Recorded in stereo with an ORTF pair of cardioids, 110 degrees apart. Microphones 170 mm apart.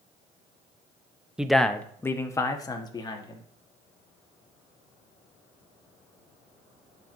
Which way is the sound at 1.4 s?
5° right.